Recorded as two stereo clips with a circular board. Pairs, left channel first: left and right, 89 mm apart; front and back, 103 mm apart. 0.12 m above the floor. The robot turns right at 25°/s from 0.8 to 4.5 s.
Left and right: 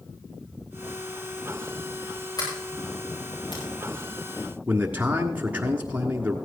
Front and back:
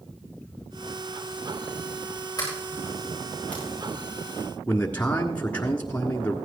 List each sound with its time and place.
2.4 s a sliding door: 50° left, 7 m; by 3.6 s 80° left, 7 m
4.7 s a man speaking: 50° right, 1.4 m